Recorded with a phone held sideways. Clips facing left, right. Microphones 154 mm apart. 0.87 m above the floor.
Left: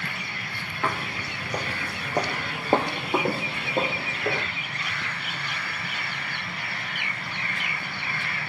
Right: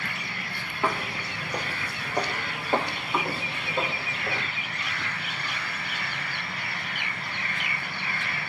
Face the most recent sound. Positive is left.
turn(degrees=65)  # may be behind; listen again after turning